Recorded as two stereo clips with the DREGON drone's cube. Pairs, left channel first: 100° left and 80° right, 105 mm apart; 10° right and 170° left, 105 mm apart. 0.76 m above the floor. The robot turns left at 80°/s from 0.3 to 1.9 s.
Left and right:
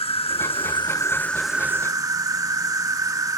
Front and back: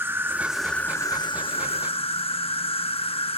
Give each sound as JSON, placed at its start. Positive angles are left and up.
{"t": 0.0, "sound": "an insect", "azimuth_deg": 105}